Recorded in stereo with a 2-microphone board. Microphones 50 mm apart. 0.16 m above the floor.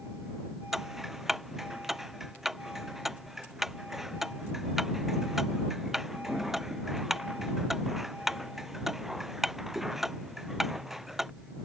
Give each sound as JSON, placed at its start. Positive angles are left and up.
{"t": 0.7, "sound": "ticking", "side_deg": -5}